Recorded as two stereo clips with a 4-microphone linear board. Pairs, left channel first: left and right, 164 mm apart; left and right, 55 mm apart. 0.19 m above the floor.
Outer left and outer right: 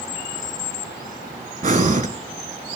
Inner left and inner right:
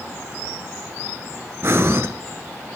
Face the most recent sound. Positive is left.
turn(degrees=-55)  # may be behind; listen again after turning